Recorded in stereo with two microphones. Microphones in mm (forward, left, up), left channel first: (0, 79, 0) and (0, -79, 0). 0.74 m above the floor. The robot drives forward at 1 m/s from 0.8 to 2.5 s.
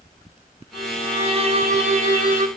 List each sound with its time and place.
0.7 s a violin: 40° right (ahead or behind), 4 m; by 2.5 s 60° right (ahead or behind), 3 m